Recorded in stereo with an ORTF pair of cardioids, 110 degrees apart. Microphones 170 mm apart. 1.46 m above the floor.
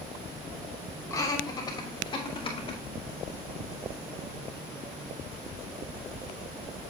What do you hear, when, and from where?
1.1 s laughter: 20° left, 3 m; by 2.8 s 35° left, 4.5 m